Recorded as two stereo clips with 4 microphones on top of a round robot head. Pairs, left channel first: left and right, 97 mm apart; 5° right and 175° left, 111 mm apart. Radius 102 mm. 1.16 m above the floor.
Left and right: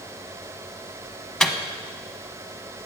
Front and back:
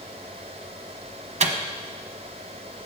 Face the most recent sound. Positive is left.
turn(degrees=175)